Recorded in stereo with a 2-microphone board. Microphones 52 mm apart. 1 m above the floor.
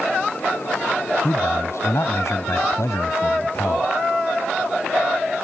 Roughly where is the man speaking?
Left.